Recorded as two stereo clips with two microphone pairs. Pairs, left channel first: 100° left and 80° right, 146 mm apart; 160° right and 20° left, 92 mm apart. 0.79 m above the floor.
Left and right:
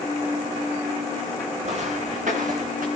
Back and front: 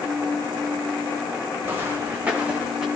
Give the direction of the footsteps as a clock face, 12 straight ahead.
1 o'clock.